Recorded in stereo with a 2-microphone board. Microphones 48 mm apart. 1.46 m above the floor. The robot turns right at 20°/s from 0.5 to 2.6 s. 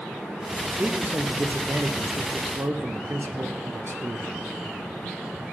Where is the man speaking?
150° right, 0.8 m; by 4.4 s 115° right, 0.8 m.